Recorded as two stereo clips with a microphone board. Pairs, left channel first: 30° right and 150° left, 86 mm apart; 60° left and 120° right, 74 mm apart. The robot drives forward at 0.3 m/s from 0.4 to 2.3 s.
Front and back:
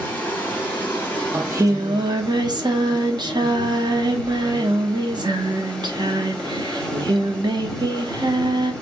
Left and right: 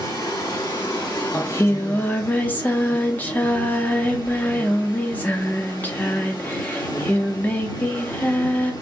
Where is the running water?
40° left, 2.0 m; by 8.8 s 50° left, 1.6 m.